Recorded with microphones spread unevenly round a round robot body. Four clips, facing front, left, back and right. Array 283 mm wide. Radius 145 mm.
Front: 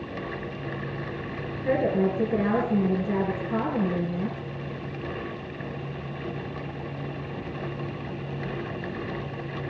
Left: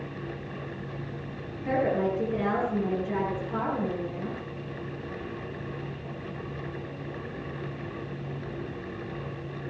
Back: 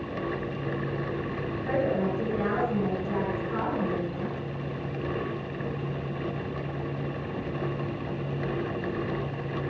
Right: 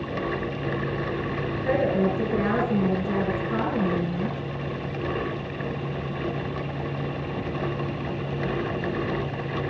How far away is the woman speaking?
About 6.5 m.